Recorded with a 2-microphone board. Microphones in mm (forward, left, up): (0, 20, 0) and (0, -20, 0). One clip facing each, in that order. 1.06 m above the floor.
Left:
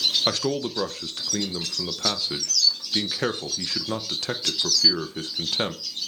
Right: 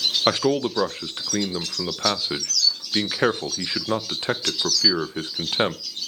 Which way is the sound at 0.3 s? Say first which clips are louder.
Right 5 dB; 25° right (ahead or behind).